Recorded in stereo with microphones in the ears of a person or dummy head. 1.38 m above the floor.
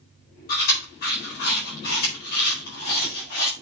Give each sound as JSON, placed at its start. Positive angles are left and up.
{"t": 0.5, "sound": "chewing", "side_deg": 50, "distance_m": 4.5}